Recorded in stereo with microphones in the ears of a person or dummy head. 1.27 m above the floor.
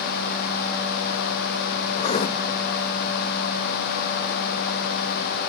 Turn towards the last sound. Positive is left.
turn(degrees=30)  # may be behind; listen again after turning